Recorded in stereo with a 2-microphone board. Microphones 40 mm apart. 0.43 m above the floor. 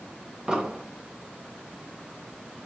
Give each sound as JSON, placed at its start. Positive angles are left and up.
{"t": 0.5, "sound": "an explosion", "side_deg": -15, "distance_m": 1.1}